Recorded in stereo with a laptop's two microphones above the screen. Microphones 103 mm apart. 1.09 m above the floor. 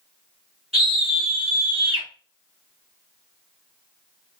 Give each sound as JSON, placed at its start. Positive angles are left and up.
{"t": 0.7, "sound": "a scream", "side_deg": -85, "distance_m": 1.6}